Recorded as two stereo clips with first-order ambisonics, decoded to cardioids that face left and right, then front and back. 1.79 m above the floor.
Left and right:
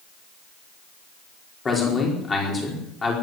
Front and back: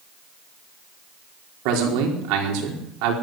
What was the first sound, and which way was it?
A man speaking, 160° left.